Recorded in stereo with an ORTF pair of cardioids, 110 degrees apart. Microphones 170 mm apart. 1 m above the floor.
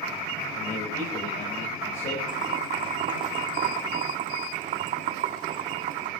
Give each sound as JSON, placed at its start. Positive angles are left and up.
{"t": 0.6, "sound": "a man speaking", "azimuth_deg": 55, "distance_m": 5.0}
{"t": 2.3, "sound": "boiling", "azimuth_deg": -50, "distance_m": 1.4}